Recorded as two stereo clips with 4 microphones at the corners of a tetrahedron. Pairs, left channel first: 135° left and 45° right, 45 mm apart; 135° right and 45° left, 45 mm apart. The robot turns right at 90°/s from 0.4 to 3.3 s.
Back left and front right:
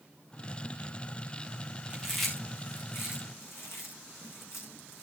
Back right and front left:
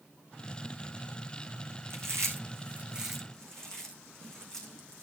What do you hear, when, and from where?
1.9 s chewing: 20° left, 4.5 m; by 5.0 s 145° left, 4.5 m